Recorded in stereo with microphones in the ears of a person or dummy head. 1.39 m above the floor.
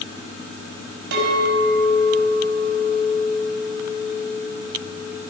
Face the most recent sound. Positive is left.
turn(degrees=-65)  # may be behind; listen again after turning